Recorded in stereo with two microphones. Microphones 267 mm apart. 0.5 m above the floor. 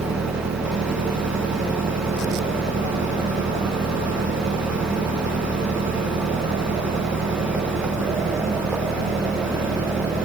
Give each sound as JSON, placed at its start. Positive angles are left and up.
{"t": 0.0, "sound": "an engine running", "side_deg": -75}